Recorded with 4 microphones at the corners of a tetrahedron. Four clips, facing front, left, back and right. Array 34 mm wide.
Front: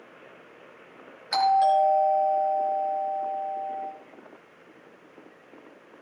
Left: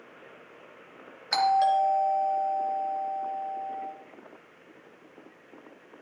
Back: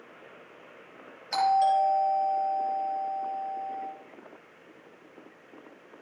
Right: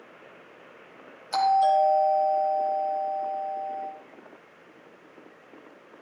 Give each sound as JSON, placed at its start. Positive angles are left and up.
{"t": 1.3, "sound": "a doorbell", "azimuth_deg": 70, "distance_m": 5.0}